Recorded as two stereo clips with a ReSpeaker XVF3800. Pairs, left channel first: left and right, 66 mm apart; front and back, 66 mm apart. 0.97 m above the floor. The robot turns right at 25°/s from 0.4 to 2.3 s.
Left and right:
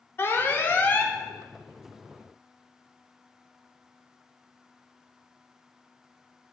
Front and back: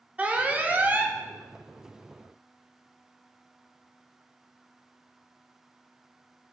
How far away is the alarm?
About 0.7 m.